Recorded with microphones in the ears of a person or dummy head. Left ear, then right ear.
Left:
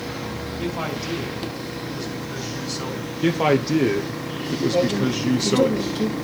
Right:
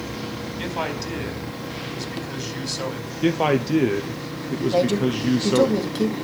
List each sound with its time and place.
0.6 s a man speaking: 85° right, 5 m
3.2 s a man speaking: 15° right (ahead or behind), 0.8 m
4.7 s a man speaking: 55° right (ahead or behind), 1.9 m